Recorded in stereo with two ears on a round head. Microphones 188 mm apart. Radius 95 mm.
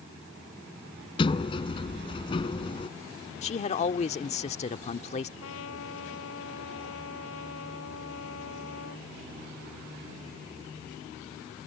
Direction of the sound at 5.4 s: 70° left (ahead or behind).